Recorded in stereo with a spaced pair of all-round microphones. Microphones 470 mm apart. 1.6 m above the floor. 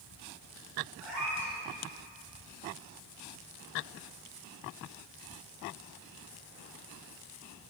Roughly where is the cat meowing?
Right.